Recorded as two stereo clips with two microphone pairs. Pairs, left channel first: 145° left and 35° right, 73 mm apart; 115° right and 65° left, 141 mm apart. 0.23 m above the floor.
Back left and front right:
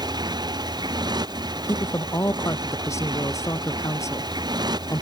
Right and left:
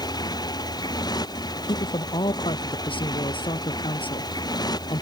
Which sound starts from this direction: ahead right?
A motorcycle, at 0.0 s.